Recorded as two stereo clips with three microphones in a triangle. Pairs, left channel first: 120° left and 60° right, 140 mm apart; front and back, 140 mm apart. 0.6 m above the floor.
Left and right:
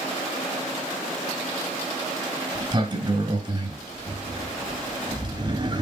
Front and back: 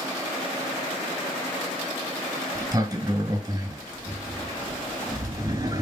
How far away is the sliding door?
About 3 m.